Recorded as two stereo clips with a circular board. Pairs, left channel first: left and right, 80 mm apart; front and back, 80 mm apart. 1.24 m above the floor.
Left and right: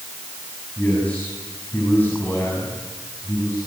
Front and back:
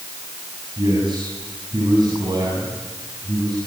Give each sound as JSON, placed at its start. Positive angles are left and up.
{"t": 0.8, "sound": "a man speaking", "azimuth_deg": 160, "distance_m": 8.0}